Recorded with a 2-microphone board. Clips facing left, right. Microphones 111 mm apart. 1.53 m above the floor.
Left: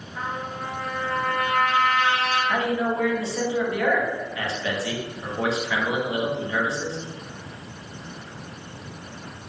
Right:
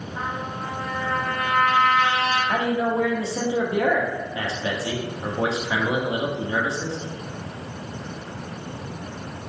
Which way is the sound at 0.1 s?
15° right (ahead or behind).